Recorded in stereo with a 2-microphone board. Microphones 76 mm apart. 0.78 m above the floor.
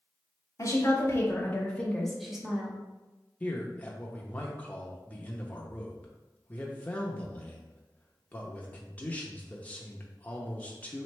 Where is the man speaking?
20° left (ahead or behind), 0.7 m.